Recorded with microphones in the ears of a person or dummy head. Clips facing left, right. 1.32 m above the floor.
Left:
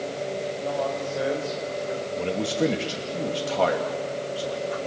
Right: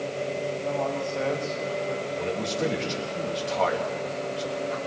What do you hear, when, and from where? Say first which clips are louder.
0.6 s a man speaking: left 1 dB; 15° left (ahead or behind), 6 m; by 2.1 s 30° left (ahead or behind), 4.5 m
2.2 s a man speaking: left 6 dB; 45° left (ahead or behind), 2.5 m